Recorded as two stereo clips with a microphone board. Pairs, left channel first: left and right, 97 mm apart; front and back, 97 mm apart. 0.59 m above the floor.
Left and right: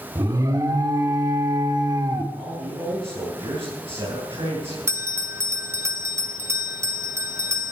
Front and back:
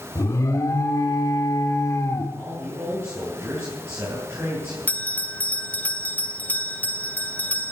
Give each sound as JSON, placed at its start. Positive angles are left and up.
{"t": 0.1, "sound": "an alarm", "azimuth_deg": -45, "distance_m": 1.9}
{"t": 2.3, "sound": "a man speaking", "azimuth_deg": -115, "distance_m": 6.0}
{"t": 4.9, "sound": "a bell", "azimuth_deg": -60, "distance_m": 0.8}